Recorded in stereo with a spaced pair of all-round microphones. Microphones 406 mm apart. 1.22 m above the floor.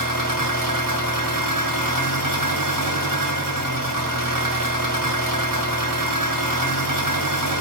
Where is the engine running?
50° right (ahead or behind), 2.5 m.